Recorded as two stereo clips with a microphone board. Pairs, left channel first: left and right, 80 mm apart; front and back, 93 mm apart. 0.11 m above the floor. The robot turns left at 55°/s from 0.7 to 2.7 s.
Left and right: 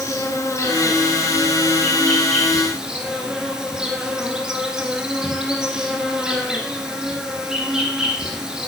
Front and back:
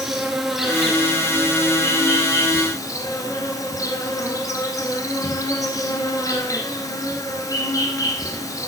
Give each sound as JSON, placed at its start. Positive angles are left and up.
{"t": 0.0, "sound": "an insect", "azimuth_deg": 95, "distance_m": 1.5}